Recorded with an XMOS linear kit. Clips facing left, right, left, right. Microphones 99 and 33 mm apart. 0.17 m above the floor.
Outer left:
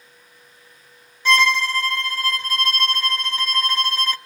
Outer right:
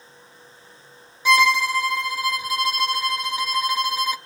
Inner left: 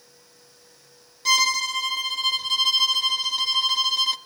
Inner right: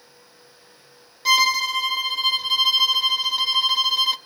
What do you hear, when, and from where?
1.2 s a violin: 10° right (ahead or behind), 0.6 m